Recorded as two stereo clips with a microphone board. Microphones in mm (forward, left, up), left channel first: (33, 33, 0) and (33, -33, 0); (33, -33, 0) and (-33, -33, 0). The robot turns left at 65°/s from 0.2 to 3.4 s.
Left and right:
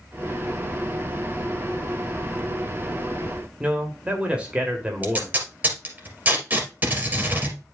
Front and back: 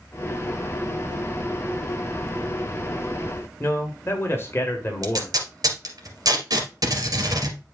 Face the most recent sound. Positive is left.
turn(degrees=-155)